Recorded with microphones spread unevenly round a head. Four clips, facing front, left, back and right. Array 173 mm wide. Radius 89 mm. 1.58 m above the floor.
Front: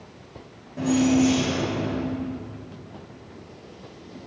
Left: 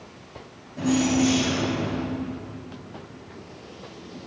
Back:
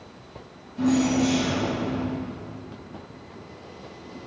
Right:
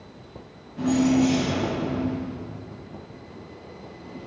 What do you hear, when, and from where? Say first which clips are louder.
0.8 s keys jangling: right 1 dB, front 2 dB; straight ahead, 5.5 m